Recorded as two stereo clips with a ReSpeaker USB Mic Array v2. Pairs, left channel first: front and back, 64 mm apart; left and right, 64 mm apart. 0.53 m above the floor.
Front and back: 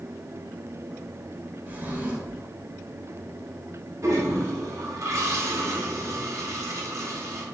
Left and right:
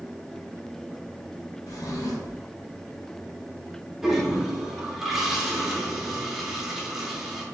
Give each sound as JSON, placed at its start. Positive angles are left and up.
{"t": 1.7, "sound": "a drawer", "azimuth_deg": 120, "distance_m": 1.1}
{"t": 4.0, "sound": "a toilet flushing", "azimuth_deg": -175, "distance_m": 1.0}